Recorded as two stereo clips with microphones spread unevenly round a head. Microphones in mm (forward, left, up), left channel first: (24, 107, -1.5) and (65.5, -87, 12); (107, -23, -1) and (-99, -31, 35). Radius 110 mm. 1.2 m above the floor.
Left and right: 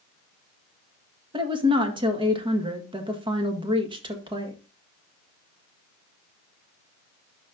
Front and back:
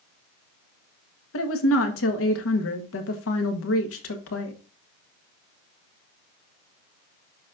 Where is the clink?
No clink in this recording.